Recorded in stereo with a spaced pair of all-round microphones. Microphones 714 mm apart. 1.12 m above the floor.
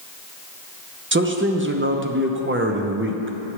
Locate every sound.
1.1 s a man speaking: 20° right (ahead or behind), 0.6 m